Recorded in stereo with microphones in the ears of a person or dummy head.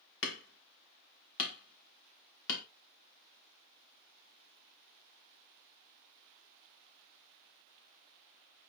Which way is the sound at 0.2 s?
70° left (ahead or behind).